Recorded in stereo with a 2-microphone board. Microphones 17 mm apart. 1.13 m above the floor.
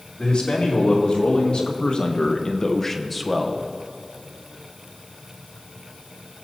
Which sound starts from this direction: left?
A man speaking, at 0.2 s.